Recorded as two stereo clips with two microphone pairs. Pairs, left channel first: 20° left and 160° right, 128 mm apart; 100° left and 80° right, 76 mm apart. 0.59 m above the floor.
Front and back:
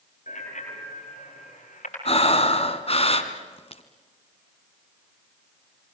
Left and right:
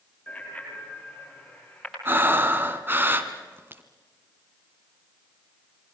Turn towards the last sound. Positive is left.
turn(degrees=-20)